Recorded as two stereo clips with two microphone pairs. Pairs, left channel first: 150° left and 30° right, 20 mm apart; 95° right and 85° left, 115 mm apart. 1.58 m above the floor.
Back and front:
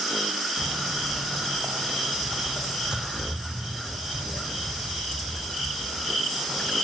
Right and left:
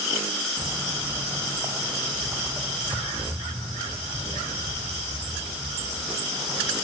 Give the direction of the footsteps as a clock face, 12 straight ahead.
11 o'clock.